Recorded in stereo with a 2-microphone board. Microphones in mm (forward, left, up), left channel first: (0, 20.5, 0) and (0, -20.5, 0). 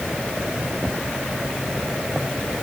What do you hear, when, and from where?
Only background noise.